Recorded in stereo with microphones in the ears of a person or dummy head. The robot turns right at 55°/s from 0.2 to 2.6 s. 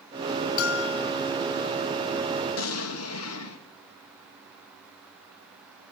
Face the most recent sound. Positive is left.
turn(degrees=90)